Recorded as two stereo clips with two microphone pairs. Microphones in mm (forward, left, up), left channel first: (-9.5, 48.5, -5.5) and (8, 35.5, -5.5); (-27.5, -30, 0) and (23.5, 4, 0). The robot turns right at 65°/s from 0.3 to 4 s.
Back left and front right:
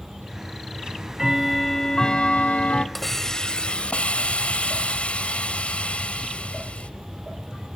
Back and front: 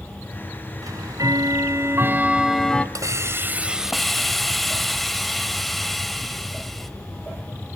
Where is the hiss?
60° left, 1.4 m; by 6.9 s 130° left, 1.4 m.